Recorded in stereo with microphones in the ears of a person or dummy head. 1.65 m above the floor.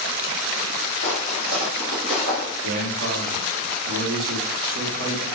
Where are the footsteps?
60° right (ahead or behind), 3.5 m; by 2.5 s 45° right (ahead or behind), 3.5 m.